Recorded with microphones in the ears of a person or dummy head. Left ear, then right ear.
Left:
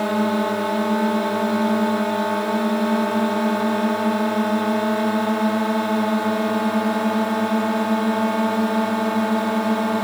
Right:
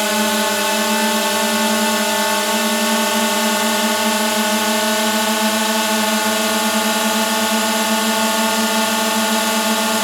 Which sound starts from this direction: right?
A drone, at 0.0 s.